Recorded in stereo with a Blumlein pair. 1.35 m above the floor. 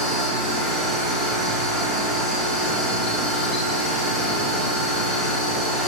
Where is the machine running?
15° left, 0.9 m.